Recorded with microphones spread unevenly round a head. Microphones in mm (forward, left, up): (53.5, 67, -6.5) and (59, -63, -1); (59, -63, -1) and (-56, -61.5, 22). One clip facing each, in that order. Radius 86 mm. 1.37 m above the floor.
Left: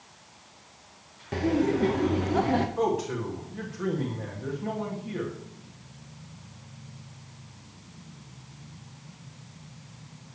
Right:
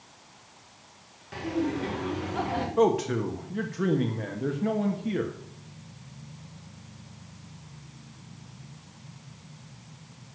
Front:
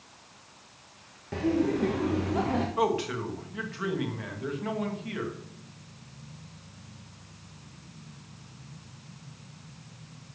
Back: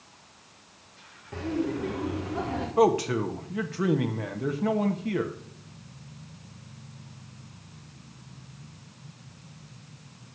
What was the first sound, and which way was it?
Laughter, 55° left.